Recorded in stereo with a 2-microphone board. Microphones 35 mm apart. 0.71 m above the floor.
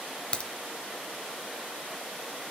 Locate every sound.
0.3 s a crack: 30° left (ahead or behind), 0.9 m